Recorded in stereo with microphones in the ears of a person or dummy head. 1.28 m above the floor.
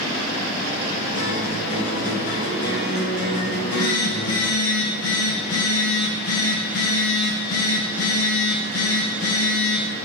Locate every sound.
1.1 s a guitar: 80° left, 3.5 m
3.5 s a phone buzzing: 85° left, 2.5 m